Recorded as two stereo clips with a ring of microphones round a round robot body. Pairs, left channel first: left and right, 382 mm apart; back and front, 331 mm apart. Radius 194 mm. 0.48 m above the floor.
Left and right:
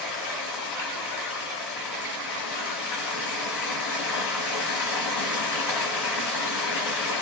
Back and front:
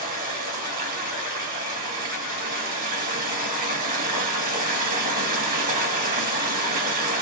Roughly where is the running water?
Ahead left.